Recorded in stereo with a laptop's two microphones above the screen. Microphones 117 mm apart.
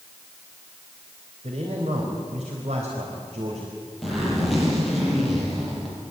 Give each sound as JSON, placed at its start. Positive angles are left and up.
{"t": 1.4, "sound": "a man speaking", "side_deg": -65, "distance_m": 4.0}
{"t": 4.0, "sound": "a zipper", "side_deg": 0, "distance_m": 8.5}